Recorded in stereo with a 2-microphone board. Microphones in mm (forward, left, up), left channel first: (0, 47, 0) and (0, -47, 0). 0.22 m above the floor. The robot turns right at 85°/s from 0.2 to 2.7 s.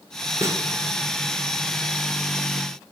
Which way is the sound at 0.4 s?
35° right (ahead or behind).